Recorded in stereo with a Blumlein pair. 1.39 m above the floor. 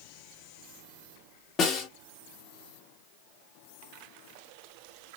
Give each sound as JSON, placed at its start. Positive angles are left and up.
{"t": 1.6, "sound": "a snare drum", "azimuth_deg": 25, "distance_m": 1.4}